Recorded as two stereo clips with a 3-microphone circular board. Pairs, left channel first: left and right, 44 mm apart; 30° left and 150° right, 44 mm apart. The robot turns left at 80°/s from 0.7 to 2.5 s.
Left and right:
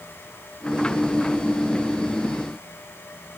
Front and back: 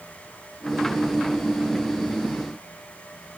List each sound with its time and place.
Only background noise.